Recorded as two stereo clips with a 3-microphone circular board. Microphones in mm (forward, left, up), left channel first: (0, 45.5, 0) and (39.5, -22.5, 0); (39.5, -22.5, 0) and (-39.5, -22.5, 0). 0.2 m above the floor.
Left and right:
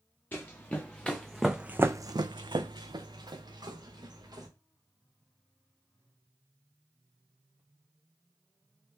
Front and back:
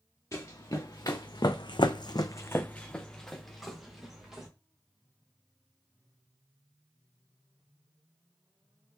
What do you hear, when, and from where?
0.3 s running footsteps: 55° left, 1.5 m; by 4.5 s 95° right, 2 m